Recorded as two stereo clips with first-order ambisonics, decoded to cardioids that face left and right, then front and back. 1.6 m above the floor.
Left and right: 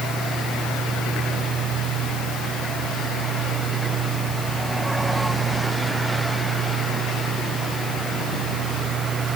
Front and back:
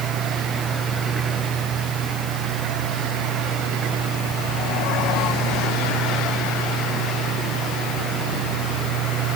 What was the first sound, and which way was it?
Only background noise.